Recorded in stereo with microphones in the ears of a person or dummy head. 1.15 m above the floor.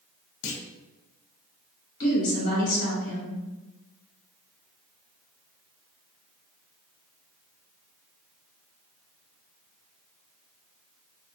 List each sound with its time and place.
0.4 s a clunk: 70° left (ahead or behind), 0.6 m
2.0 s a woman speaking: 50° left (ahead or behind), 1.7 m